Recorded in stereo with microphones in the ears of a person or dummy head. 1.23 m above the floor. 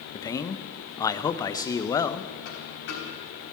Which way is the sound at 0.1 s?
20° left (ahead or behind).